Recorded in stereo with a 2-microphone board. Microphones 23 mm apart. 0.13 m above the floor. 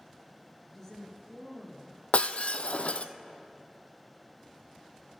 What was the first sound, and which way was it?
A woman speaking, 5° left (ahead or behind).